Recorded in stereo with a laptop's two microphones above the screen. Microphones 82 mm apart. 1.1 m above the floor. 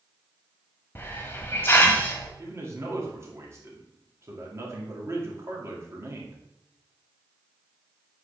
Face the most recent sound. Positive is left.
turn(degrees=-35)  # may be behind; listen again after turning